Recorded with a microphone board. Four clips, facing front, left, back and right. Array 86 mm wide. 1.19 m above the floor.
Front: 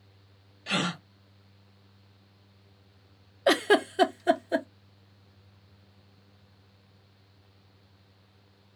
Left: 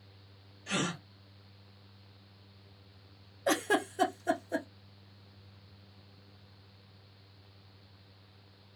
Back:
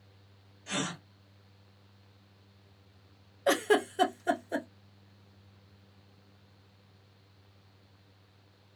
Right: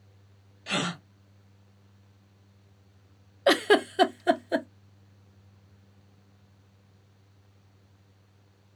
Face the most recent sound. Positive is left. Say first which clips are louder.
# right 8 dB, front 3 dB
turn(degrees=-65)